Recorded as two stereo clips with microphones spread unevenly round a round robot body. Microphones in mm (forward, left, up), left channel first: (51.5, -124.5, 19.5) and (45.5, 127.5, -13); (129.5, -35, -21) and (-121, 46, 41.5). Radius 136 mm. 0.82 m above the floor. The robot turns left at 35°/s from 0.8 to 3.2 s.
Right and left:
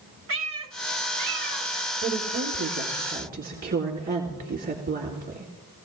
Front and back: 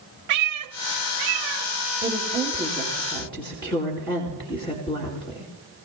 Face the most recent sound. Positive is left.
turn(degrees=45)